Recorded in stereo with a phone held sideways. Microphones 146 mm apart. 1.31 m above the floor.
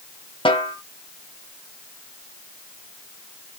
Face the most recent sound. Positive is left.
turn(degrees=40)  # may be behind; listen again after turning